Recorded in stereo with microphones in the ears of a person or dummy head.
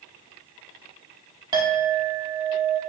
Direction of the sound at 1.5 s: 20° right (ahead or behind).